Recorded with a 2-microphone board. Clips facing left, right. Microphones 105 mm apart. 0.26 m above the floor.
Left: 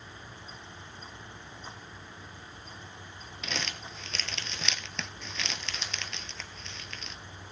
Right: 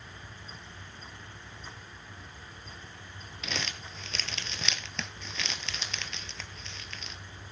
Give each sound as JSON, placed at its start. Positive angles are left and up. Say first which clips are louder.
{"t": 3.4, "sound": "crumpling", "louder": "even", "side_deg": 0, "distance_m": 1.2}